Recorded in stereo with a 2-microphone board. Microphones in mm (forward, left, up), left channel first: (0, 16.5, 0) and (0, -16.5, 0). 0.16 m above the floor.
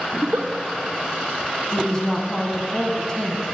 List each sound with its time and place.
0.1 s a giggle: 70° right (ahead or behind), 1.4 m
1.7 s a woman speaking: 20° left (ahead or behind), 1.4 m